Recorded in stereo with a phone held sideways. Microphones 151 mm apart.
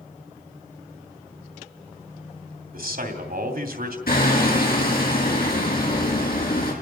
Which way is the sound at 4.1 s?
85° left.